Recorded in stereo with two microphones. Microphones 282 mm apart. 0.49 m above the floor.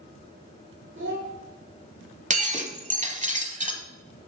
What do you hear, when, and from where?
0.9 s a child speaking: 65° right (ahead or behind), 2.5 m
2.3 s breaking glass: 25° right (ahead or behind), 1.1 m